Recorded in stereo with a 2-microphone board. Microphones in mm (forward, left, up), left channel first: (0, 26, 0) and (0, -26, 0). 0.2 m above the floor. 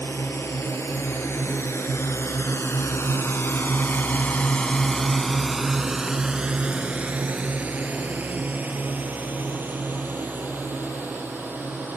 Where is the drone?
60° left (ahead or behind); by 12.0 s 40° right (ahead or behind).